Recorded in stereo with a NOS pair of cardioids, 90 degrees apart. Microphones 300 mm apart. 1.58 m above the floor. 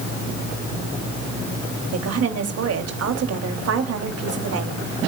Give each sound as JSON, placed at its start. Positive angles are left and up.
{"t": 1.9, "sound": "a woman speaking", "azimuth_deg": -55, "distance_m": 3.0}